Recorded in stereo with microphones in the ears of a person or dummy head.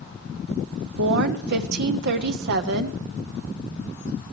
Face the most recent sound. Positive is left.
turn(degrees=-65)  # may be behind; listen again after turning